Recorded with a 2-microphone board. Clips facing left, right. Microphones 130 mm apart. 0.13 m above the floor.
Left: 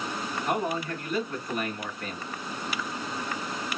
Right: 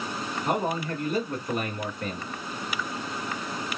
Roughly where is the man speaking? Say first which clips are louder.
Right 2 dB; right.